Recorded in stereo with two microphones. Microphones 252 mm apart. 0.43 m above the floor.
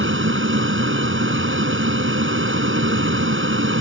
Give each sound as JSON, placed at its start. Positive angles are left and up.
{"t": 0.0, "sound": "an aircraft", "side_deg": -50}